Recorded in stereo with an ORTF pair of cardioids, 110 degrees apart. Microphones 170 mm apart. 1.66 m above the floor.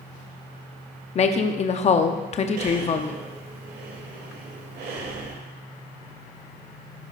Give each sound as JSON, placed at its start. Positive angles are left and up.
{"t": 1.1, "sound": "a woman speaking", "azimuth_deg": 40, "distance_m": 0.6}
{"t": 2.6, "sound": "breathing", "azimuth_deg": -65, "distance_m": 1.8}